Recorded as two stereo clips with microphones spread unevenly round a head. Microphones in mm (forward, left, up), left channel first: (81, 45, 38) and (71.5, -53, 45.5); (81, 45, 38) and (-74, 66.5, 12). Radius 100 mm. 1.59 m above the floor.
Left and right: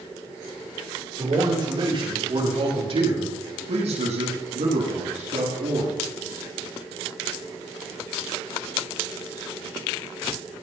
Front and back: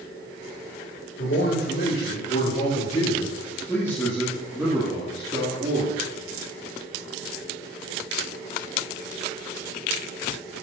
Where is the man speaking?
50° right, 5.5 m; by 5.9 s 130° right, 4 m.